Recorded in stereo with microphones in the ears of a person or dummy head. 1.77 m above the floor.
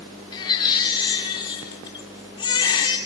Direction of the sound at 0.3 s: 25° left (ahead or behind).